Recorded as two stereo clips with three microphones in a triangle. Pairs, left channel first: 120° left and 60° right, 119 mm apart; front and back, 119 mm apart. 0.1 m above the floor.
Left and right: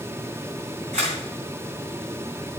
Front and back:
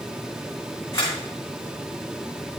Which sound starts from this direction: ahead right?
A camera shutter, at 0.9 s.